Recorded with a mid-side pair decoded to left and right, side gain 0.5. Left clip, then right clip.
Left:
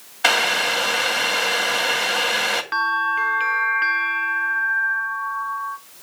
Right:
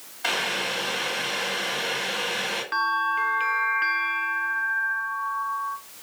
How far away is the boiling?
About 2.5 m.